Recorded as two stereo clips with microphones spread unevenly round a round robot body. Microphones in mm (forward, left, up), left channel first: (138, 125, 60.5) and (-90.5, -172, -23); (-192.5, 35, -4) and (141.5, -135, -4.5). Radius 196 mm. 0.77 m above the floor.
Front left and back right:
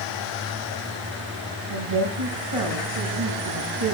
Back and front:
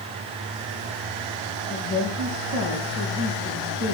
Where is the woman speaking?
140° right, 5 m.